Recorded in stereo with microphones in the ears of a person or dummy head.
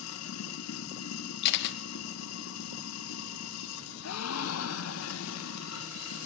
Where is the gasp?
85° left, 1.3 m.